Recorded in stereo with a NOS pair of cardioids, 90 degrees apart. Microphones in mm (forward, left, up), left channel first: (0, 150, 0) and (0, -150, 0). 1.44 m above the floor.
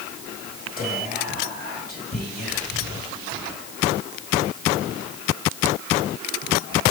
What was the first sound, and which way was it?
Whispering, 30° left.